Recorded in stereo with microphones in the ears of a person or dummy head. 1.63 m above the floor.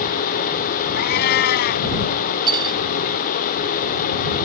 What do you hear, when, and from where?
1.0 s a cat meowing: 60° left (ahead or behind)
2.5 s cutlery clinking: 25° right (ahead or behind)